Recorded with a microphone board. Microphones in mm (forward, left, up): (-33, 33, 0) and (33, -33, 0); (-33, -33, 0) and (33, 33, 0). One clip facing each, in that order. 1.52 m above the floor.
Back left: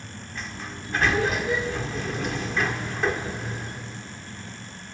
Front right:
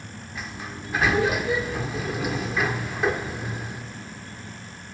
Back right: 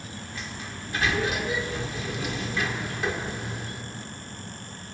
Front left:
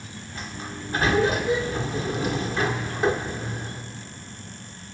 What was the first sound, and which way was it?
A sliding door, 35° left.